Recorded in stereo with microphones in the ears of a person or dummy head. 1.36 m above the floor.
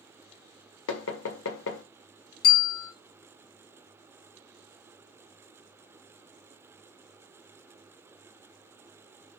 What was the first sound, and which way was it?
Knocking, 80° left.